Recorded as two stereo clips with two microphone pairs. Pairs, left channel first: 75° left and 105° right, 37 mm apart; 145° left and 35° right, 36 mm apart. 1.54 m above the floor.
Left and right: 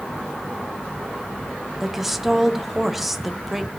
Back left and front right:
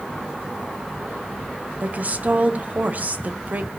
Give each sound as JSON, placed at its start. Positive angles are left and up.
{"t": 1.8, "sound": "a woman speaking", "azimuth_deg": -20, "distance_m": 0.6}